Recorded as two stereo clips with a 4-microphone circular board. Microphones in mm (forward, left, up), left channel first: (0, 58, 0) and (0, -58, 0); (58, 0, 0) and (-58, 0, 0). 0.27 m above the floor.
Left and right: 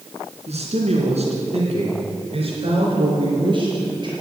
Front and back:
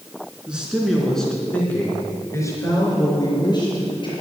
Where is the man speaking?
100° right, 3.5 m; by 4.1 s 45° right, 5 m.